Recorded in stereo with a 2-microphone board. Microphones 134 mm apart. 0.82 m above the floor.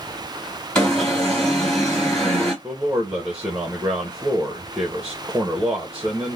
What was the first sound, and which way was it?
An alarm, 5° left (ahead or behind).